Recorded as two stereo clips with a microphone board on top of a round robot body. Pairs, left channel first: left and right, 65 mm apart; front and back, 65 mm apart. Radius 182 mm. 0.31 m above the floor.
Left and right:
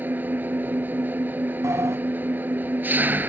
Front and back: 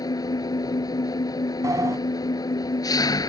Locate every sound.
0.0 s an engine running: 25° right
1.6 s a sliding door: 135° right